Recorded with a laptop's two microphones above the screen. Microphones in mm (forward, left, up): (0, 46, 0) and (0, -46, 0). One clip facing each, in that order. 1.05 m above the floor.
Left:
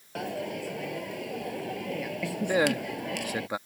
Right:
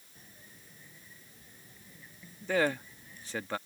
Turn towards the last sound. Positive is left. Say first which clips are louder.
# left 3 dB
turn(degrees=15)  # may be behind; listen again after turning